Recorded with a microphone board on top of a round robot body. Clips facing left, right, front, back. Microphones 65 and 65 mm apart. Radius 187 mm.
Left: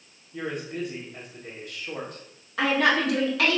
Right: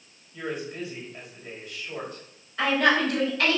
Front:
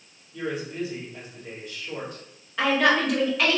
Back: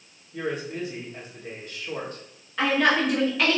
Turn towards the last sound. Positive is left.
turn(degrees=95)